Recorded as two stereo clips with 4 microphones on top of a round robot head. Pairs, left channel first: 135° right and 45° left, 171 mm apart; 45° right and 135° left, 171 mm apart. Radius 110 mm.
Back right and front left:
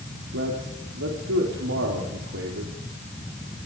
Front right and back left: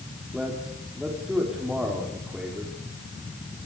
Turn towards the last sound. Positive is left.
turn(degrees=45)